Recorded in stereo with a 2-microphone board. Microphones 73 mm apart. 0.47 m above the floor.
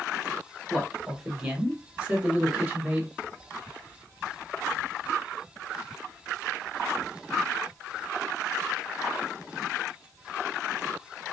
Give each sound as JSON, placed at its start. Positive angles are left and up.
{"t": 0.7, "sound": "a man speaking", "side_deg": -5, "distance_m": 1.5}